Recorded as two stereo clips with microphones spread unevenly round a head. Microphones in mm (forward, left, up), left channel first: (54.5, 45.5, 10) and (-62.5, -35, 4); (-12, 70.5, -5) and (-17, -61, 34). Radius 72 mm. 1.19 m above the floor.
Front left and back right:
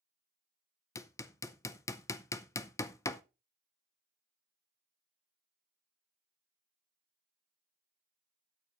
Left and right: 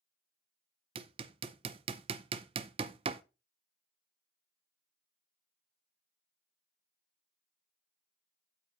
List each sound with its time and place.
0.9 s hammering: 35° right, 0.5 m